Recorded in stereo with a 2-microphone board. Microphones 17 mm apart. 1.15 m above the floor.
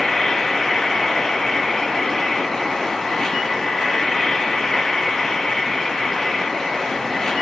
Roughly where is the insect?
Left.